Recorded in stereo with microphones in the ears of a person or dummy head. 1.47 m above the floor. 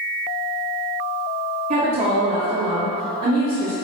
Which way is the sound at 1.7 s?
25° right (ahead or behind).